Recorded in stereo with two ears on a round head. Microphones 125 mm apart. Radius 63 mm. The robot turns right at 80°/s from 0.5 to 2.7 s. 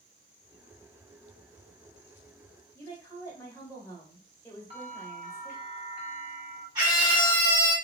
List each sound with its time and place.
2.8 s a woman speaking: 15° left (ahead or behind), 1.1 m
4.7 s a bell: 35° right (ahead or behind), 1.9 m
6.8 s a scream: 30° right (ahead or behind), 2 m